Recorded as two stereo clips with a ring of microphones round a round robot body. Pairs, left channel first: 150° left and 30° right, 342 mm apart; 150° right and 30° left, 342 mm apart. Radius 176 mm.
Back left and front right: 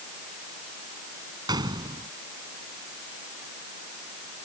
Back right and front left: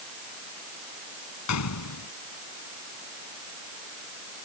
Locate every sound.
1.5 s a gunshot: 110° right